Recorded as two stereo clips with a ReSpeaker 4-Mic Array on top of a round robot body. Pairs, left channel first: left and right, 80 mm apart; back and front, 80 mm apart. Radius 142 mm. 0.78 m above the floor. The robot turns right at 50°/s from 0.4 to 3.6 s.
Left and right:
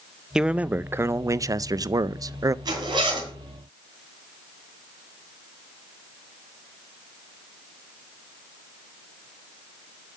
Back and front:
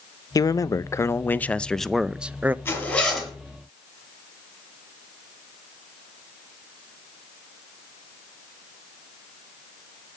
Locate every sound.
0.3 s a man speaking: 165° right, 0.6 m; by 2.5 s 60° right, 0.6 m
2.6 s a zipper: 120° right, 4.5 m; by 3.3 s 85° right, 4.5 m